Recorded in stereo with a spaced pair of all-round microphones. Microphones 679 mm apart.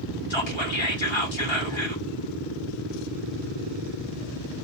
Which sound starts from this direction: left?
Whispering, at 0.3 s.